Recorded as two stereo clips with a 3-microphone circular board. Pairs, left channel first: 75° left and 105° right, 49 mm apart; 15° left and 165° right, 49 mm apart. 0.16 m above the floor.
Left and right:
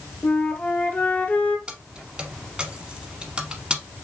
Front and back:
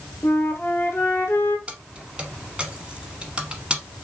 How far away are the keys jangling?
About 1.0 m.